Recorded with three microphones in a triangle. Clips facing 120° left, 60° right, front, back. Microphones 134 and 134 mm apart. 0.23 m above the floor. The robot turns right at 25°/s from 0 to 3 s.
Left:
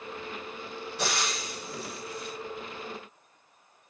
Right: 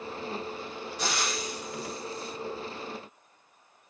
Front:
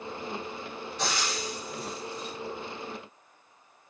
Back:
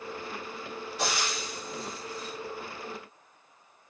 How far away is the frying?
About 7.5 m.